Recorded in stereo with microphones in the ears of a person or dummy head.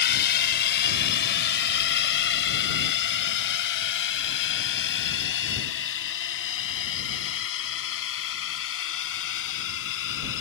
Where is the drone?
60° left (ahead or behind); by 10.4 s 75° left (ahead or behind).